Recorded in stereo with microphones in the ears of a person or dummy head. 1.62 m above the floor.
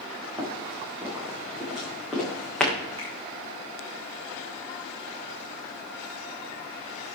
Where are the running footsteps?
15° right (ahead or behind), 6.5 m; by 2.7 s centre (ahead or behind), 7 m.